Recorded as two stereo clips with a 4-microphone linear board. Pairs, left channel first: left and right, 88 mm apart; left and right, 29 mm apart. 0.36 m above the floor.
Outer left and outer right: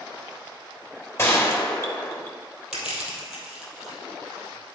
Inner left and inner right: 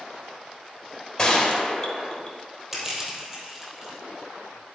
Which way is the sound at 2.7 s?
5° right (ahead or behind).